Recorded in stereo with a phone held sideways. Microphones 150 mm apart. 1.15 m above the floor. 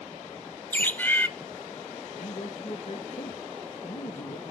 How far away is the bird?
About 0.6 m.